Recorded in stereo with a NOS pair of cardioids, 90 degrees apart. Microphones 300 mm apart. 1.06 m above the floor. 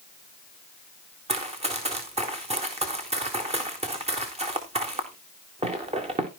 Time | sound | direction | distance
1.3 | running footsteps | 20° right | 4 m